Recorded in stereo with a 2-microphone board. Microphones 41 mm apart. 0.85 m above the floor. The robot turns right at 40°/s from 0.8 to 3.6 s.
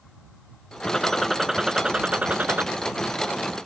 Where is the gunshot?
165° left; by 2.7 s 125° right.